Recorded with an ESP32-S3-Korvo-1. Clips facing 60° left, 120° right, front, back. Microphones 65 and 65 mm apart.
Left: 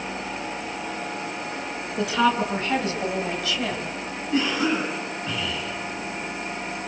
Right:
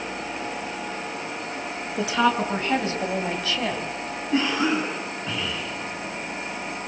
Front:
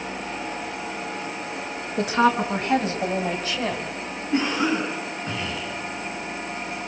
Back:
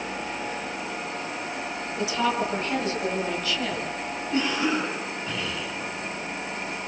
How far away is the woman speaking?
About 4 m.